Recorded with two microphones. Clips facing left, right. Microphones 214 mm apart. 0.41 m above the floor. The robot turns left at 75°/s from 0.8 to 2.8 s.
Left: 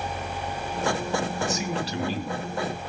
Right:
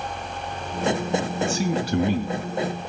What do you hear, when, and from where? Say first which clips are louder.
1.4 s a man speaking: right 4 dB; 25° right, 3 m; by 2.5 s 105° right, 3 m